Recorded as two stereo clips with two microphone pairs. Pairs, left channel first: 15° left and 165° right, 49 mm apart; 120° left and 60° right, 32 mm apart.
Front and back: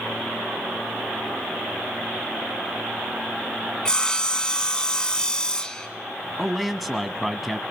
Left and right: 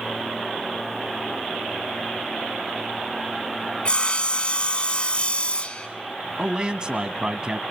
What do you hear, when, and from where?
3.9 s sawing: 80° left, 1.5 m
6.4 s a man speaking: 70° right, 1.2 m